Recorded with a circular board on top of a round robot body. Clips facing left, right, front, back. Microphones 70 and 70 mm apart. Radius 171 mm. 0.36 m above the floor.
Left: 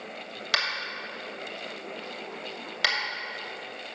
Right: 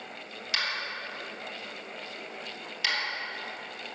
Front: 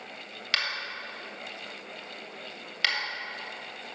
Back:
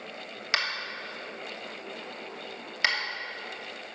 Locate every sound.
0.5 s tapping: 110° left, 2.5 m